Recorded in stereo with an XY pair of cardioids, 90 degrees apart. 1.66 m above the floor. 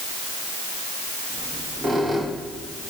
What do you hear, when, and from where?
1.3 s a squeak: 40° right, 2.0 m